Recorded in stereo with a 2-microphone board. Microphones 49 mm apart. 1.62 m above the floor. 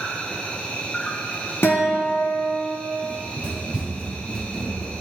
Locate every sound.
0.0 s an insect: 25° left (ahead or behind), 0.7 m
1.6 s a guitar: 45° left (ahead or behind), 1.1 m
3.0 s running footsteps: 35° right (ahead or behind), 2 m; by 4.9 s 20° left (ahead or behind), 1.8 m